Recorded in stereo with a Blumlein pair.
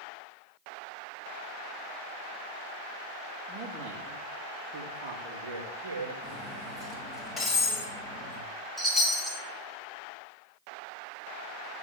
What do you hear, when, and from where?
3.5 s a man speaking: 20° right, 2.5 m; by 6.1 s 70° right, 2 m
6.2 s cutlery clinking: 15° left, 5 m
8.8 s a chime: straight ahead, 2.5 m